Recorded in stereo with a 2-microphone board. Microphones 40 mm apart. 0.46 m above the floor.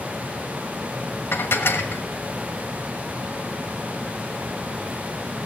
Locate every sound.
1.3 s dishes clattering: 75° left (ahead or behind), 1.2 m